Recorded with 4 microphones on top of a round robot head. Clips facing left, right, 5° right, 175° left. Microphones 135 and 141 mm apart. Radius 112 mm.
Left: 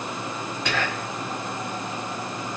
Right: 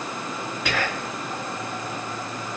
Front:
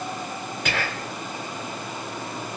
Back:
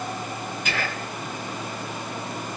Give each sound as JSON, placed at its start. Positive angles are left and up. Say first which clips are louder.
{"t": 0.7, "sound": "whispering", "louder": "right 1 dB, front 2 dB", "azimuth_deg": 0, "distance_m": 2.5}